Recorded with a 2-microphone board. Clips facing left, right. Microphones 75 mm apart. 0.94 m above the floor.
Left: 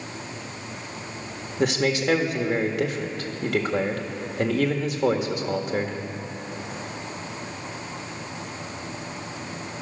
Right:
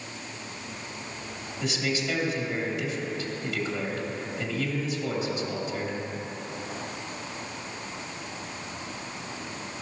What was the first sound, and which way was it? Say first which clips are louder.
A man speaking: left 7 dB; 65° left (ahead or behind).